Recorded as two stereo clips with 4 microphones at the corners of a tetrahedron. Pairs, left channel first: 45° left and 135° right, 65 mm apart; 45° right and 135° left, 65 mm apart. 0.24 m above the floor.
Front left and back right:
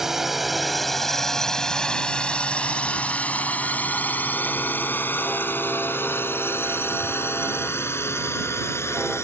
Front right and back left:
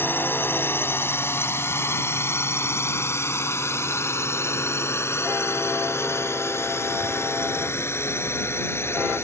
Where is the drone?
55° right; by 9.2 s straight ahead.